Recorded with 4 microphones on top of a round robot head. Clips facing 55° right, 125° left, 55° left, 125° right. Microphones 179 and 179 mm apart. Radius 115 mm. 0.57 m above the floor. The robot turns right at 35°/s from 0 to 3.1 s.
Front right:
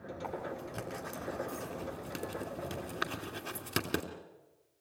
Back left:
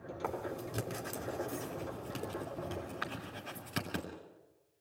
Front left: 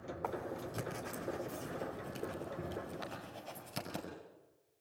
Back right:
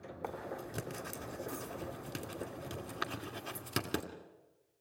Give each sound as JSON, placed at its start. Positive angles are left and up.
{"t": 0.2, "sound": "writing", "azimuth_deg": 160, "distance_m": 2.5}